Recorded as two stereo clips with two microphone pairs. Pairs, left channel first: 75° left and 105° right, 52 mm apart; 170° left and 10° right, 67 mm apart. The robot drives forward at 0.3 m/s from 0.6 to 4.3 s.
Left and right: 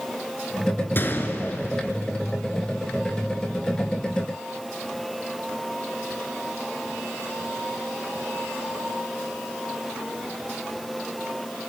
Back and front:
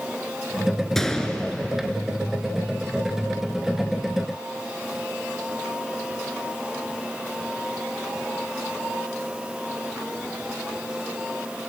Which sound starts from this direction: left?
A gunshot, at 0.9 s.